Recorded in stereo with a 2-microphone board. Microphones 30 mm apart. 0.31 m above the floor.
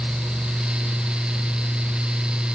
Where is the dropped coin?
I don't hear a dropped coin.